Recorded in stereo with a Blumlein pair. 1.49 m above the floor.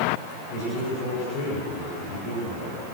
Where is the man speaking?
40° left, 8 m.